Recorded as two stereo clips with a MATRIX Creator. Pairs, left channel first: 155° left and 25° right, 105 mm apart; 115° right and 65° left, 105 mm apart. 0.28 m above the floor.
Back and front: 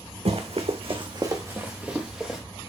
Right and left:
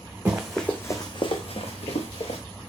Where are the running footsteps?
10° right, 1.5 m; by 2.4 s 110° right, 2.5 m.